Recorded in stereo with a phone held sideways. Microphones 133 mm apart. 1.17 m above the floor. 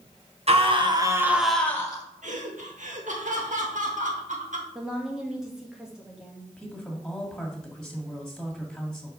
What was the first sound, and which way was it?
A scream, 50° right (ahead or behind).